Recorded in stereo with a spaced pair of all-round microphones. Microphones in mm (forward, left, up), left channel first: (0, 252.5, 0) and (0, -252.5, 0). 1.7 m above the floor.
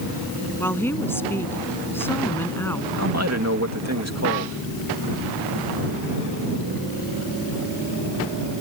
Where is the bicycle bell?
I don't hear a bicycle bell.